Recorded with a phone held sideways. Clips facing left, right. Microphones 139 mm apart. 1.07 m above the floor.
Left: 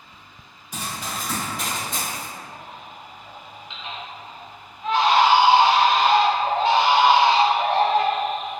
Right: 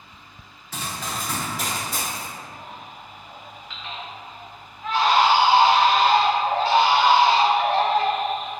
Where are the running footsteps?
15° left (ahead or behind), 1.0 m; by 2.3 s 15° right (ahead or behind), 1.3 m.